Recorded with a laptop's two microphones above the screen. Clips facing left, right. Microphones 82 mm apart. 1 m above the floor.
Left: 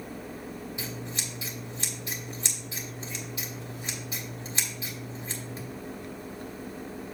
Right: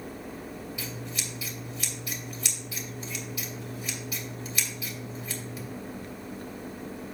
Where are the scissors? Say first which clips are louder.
Even; 30° left (ahead or behind), 2.5 m.